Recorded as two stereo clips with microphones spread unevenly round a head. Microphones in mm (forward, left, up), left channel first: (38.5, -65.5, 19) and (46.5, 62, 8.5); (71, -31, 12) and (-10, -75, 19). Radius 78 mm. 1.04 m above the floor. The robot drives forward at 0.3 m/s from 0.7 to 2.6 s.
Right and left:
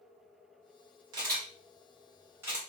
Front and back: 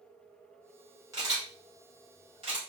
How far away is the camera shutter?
About 0.7 m.